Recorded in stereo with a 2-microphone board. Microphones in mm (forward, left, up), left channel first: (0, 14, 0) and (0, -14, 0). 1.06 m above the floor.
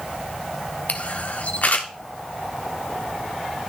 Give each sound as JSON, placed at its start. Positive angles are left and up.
{"t": 0.9, "sound": "a camera shutter", "side_deg": 60, "distance_m": 1.2}